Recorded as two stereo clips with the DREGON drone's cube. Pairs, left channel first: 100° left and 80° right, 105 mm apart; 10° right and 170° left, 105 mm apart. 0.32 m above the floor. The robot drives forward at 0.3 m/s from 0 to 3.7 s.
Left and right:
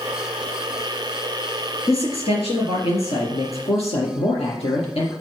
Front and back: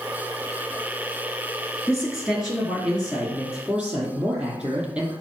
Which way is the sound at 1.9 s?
85° left.